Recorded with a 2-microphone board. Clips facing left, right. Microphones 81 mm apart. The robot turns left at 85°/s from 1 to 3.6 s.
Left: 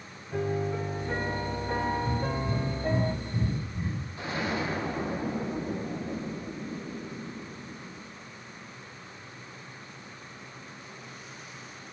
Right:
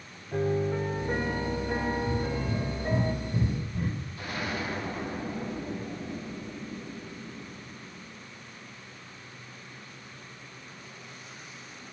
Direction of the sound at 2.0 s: 80° left.